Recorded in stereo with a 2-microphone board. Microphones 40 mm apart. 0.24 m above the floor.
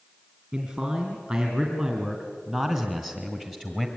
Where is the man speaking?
30° right (ahead or behind), 3 m; by 3.9 s 20° right (ahead or behind), 1.6 m.